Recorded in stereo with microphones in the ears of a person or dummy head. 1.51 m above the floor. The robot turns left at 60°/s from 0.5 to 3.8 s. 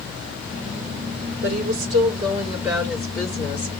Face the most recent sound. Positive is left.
turn(degrees=130)